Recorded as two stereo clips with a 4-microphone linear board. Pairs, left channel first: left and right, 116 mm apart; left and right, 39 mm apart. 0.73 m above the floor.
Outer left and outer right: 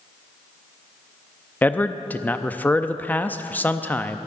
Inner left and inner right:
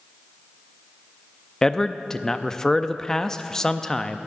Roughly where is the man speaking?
Centre.